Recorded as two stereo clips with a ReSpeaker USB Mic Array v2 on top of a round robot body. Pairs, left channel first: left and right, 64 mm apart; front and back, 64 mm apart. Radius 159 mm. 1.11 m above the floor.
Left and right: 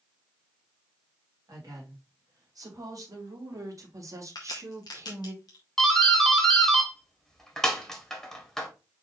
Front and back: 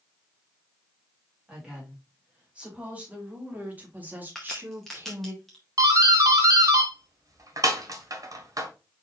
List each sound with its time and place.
1.5 s a woman speaking: 105° right, 3 m; by 5.3 s 135° right, 1.2 m
4.3 s a crack: 85° left, 0.5 m
5.8 s a doorbell: 175° left, 1.8 m